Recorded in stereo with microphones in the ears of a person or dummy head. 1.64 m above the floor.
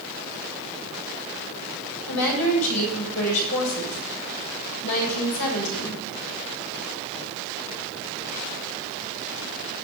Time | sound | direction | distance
2.1 | a woman speaking | 85° left | 7 m